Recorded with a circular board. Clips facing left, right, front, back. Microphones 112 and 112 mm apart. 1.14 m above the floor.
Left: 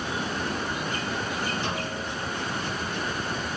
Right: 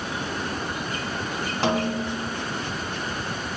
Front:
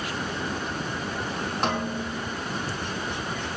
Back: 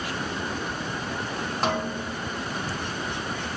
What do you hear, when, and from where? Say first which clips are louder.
1.6 s a snare drum: right 7 dB, back 1 dB; 90° right, 1.5 m